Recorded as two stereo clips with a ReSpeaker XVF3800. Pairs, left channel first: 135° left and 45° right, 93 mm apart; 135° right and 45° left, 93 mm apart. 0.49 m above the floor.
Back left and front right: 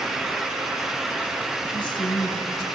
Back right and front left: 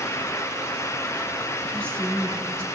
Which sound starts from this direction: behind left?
A woman speaking, at 1.7 s.